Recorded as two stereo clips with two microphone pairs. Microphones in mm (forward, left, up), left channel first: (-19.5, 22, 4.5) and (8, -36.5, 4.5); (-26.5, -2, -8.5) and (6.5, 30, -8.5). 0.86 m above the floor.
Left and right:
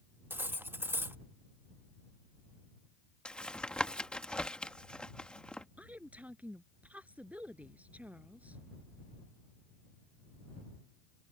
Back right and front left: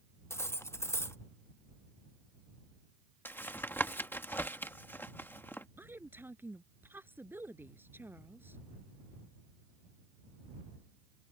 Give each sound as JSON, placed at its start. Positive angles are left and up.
{"t": 0.3, "sound": "cutlery clinking", "azimuth_deg": -120}
{"t": 3.2, "sound": "tapping", "azimuth_deg": -170}
{"t": 5.8, "sound": "a woman speaking", "azimuth_deg": 5}